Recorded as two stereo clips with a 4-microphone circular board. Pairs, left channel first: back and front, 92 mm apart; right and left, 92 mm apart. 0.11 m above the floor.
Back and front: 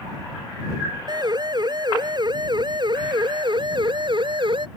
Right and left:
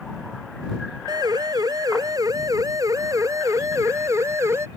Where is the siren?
45° left; by 4.7 s 30° left.